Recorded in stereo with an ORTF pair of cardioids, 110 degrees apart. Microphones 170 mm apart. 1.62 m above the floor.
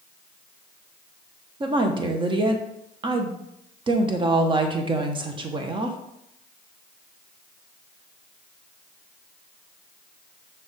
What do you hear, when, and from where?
1.6 s a woman speaking: 30° right, 1.1 m